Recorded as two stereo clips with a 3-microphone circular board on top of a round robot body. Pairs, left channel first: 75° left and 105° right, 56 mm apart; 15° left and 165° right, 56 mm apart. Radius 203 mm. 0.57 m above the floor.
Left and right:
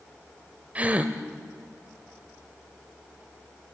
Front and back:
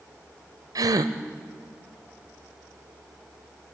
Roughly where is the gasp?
Behind.